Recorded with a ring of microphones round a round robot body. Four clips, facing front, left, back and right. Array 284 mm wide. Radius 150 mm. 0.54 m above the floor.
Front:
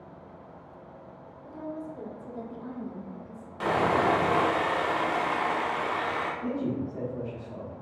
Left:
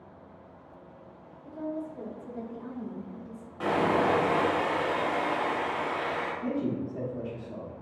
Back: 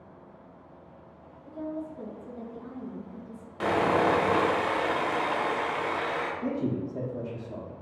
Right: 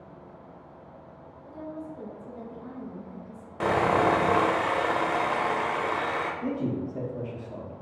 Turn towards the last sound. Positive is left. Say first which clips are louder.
# right 1 dB, even
turn(degrees=-155)